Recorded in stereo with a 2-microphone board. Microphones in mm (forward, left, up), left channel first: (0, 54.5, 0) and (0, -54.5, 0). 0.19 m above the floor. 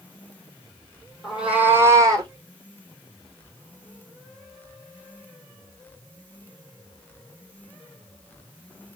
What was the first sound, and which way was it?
A cat meowing, 5° right (ahead or behind).